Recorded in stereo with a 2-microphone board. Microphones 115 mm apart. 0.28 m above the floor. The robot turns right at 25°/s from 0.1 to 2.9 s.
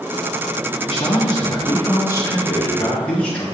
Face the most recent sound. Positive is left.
turn(degrees=170)